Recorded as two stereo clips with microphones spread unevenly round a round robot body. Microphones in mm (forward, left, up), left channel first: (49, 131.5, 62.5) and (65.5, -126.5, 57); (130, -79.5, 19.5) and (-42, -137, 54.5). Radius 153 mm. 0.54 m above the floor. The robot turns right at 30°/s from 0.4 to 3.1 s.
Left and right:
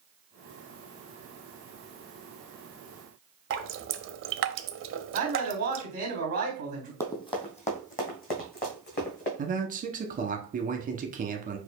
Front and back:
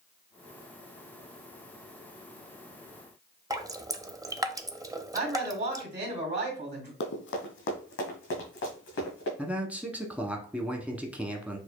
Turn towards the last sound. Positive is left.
turn(degrees=-65)